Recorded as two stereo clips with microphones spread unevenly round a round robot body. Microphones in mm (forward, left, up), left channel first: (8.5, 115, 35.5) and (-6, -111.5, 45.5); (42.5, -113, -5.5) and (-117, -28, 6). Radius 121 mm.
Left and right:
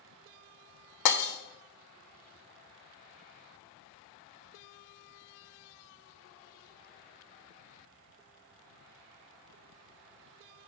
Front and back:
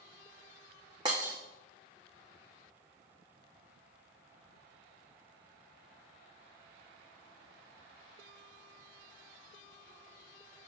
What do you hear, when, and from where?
1.1 s breaking glass: 80° left, 1.6 m